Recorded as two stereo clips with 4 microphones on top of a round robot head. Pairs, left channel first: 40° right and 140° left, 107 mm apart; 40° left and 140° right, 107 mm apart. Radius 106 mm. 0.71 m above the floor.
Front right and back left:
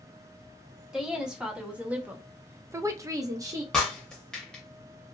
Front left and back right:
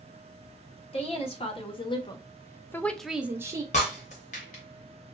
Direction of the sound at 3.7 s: 45° left.